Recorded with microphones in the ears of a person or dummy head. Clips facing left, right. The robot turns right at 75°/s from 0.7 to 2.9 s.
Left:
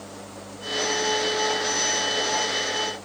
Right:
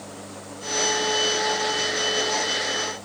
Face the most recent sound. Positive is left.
No sound to turn to.